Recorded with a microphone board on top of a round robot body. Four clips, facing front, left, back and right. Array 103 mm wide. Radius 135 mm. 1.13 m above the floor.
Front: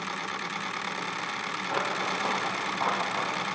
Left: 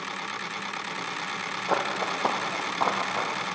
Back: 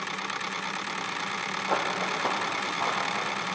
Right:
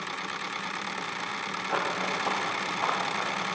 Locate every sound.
1.7 s running footsteps: 115° left, 3.5 m; by 3.4 s 75° left, 3.5 m